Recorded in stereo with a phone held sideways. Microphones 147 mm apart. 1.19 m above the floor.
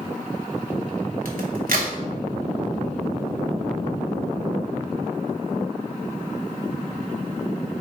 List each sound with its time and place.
1.2 s a crack: 75° right (ahead or behind), 0.7 m